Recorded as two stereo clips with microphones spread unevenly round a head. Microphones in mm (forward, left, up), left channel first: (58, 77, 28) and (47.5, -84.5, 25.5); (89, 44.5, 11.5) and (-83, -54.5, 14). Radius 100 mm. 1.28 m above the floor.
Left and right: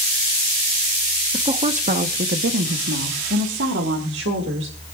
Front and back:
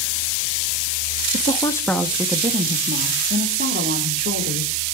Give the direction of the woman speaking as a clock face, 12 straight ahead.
1 o'clock.